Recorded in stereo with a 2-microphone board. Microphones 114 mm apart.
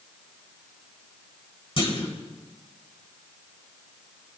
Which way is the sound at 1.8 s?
55° left (ahead or behind).